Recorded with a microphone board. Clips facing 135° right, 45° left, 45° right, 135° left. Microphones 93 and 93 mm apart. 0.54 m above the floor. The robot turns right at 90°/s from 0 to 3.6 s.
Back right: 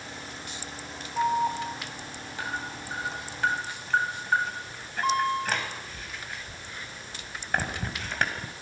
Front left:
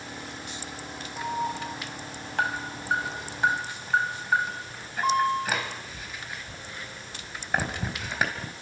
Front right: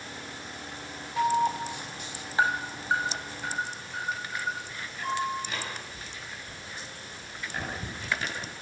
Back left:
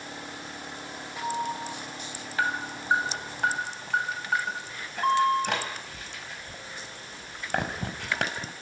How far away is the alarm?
About 4 m.